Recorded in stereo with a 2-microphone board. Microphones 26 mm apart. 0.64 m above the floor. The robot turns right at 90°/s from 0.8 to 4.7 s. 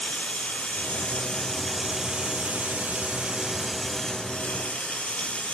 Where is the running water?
95° left, 1.0 m; by 5.5 s 85° left, 1.0 m.